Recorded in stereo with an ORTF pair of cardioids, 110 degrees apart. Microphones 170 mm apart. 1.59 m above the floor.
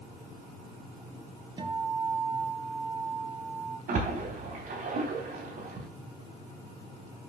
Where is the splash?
55° right, 3.5 m.